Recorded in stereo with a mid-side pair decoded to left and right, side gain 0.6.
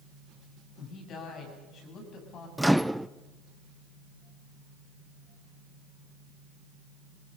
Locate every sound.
0.8 s a woman speaking: 50° left, 8 m
2.6 s a microwave: straight ahead, 0.5 m